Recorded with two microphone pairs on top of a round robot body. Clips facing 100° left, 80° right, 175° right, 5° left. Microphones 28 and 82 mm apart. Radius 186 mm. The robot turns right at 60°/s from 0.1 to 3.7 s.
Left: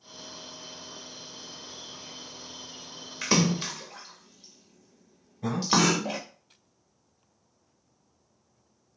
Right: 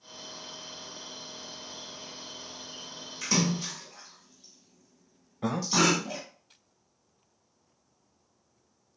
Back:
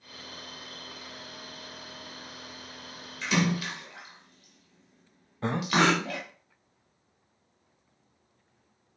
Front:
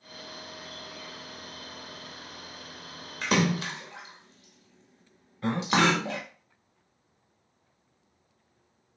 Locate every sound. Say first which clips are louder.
3.2 s a splash: left 3 dB, front 2 dB; 40° left, 0.9 m; by 6.2 s 70° left, 0.9 m
5.4 s breathing: left 1 dB, even; 110° right, 0.6 m